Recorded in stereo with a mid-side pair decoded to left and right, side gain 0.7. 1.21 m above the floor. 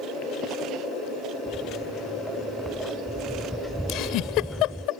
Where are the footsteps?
Straight ahead.